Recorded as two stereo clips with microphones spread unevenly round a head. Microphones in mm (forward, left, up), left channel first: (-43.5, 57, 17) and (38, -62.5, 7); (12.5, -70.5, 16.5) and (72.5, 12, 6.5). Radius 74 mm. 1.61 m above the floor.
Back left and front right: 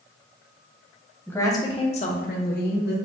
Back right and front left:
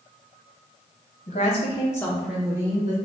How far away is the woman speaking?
About 0.9 m.